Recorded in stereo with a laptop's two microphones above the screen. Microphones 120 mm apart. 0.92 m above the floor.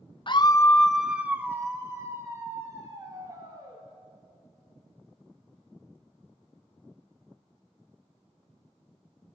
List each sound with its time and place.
0.3 s a scream: 45° left (ahead or behind), 0.5 m; by 3.8 s 35° right (ahead or behind), 3 m